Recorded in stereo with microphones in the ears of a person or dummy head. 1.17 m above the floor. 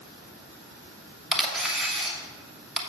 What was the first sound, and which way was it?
A camera shutter, centre (ahead or behind).